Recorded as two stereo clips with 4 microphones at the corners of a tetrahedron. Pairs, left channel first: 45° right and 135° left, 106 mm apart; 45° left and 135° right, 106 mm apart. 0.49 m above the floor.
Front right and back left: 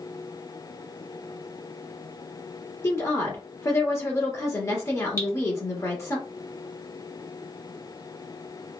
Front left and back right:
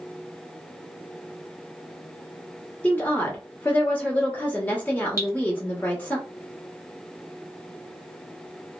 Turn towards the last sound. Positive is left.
turn(degrees=0)